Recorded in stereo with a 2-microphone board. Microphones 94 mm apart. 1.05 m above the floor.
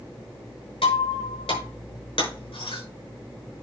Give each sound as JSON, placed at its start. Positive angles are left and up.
{"t": 0.8, "sound": "breaking glass", "side_deg": 85, "distance_m": 5.5}